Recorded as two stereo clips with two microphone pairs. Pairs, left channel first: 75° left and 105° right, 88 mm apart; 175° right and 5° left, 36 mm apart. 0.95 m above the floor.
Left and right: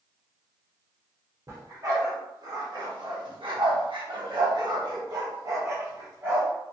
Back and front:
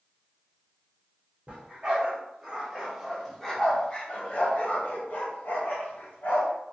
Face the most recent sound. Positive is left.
turn(degrees=-165)